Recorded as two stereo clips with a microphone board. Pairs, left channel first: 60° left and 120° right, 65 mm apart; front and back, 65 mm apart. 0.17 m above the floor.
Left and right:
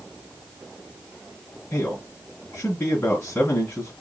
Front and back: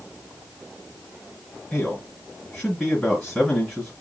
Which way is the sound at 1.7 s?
75° left.